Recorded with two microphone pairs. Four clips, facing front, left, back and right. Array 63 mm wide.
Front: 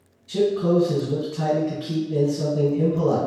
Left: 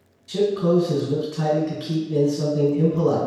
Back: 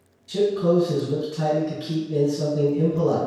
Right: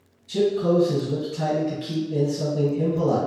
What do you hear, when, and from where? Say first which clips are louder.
0.3 s a man speaking: left 1 dB, even; 100° left, 1.8 m